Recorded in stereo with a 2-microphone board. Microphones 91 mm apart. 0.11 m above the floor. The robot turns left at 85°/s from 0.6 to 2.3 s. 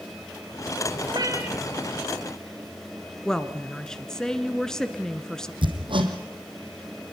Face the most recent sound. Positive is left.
turn(degrees=-65)  # may be behind; listen again after turning